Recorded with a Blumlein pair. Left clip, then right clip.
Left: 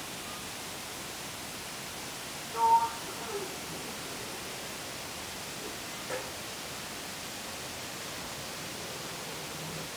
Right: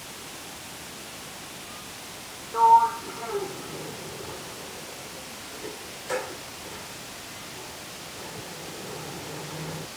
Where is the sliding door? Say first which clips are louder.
Right 8 dB; 25° right.